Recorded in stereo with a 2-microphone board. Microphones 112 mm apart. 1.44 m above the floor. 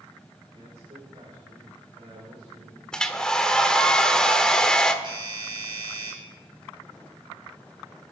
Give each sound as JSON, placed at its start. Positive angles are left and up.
{"t": 0.5, "sound": "a man speaking", "side_deg": -65, "distance_m": 5.0}
{"t": 2.9, "sound": "a hair dryer", "side_deg": 5, "distance_m": 1.1}
{"t": 5.0, "sound": "a doorbell", "side_deg": -45, "distance_m": 8.0}